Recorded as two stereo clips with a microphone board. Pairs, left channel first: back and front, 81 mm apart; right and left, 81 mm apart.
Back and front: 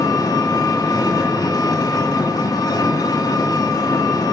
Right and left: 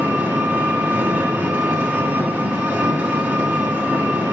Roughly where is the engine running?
Behind left.